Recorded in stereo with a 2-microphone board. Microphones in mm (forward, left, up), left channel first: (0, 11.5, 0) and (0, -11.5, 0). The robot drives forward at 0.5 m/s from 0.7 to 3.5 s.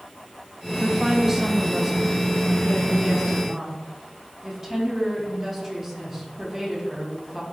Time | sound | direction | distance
0.8 | a woman speaking | 30° right (ahead or behind) | 0.8 m